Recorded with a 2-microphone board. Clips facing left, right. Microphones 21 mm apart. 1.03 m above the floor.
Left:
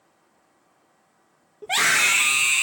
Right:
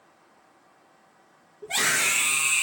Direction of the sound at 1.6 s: 75° left (ahead or behind).